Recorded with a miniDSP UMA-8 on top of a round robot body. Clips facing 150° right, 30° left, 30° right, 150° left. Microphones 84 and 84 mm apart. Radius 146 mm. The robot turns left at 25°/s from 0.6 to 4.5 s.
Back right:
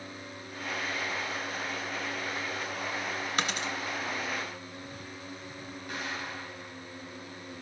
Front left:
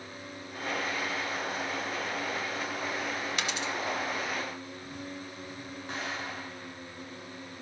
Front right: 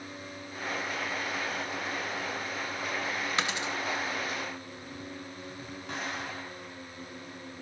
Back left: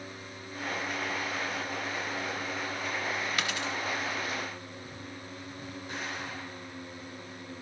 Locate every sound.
3.4 s a dropped coin: 95° right, 0.5 m; by 3.7 s 105° right, 0.5 m
5.9 s an explosion: 30° right, 5.5 m